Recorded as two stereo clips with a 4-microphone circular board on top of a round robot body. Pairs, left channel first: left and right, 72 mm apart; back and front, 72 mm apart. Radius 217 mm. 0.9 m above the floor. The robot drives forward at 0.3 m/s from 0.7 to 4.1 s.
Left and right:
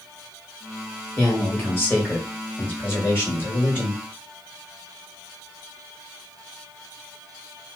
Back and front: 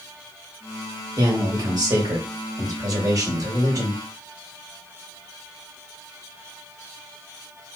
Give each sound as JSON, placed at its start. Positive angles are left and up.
{"t": 1.2, "sound": "a man speaking", "azimuth_deg": 25, "distance_m": 3.0}